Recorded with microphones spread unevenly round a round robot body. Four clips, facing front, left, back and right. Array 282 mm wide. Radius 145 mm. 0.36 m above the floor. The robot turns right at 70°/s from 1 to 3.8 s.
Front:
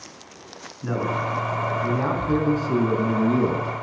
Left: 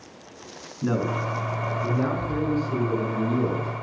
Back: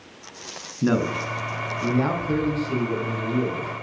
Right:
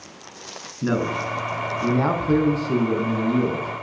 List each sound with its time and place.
0.8 s a man speaking: 170° right, 4.5 m; by 3.7 s 20° left, 4.5 m